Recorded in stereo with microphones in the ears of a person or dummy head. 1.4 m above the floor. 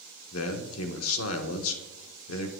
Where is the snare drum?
No snare drum in this recording.